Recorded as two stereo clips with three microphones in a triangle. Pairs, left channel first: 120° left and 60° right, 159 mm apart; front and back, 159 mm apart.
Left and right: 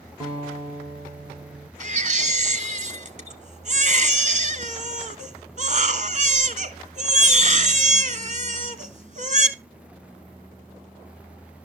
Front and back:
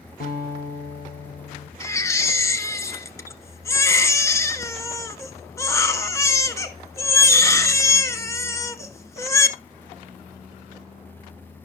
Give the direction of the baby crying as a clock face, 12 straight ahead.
2 o'clock.